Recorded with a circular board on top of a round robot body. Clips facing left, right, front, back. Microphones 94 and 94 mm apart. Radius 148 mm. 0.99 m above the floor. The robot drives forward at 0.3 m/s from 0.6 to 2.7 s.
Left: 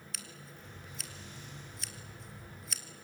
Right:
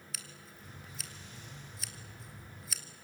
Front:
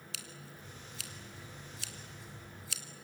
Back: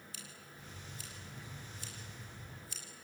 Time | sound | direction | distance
0.1 | scissors | straight ahead | 2 m